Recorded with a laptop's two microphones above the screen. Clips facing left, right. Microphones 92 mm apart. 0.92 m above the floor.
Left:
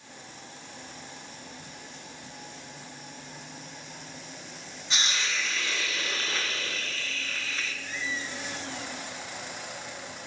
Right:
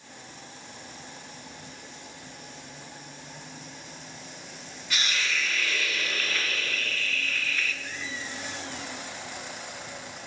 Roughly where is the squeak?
Right.